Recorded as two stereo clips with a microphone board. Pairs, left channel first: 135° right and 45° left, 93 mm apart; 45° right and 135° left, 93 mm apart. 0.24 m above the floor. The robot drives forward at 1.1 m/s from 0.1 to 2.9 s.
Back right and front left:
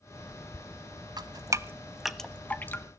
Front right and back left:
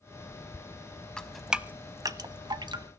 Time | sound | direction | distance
1.2 | dripping | 30° left | 1.0 m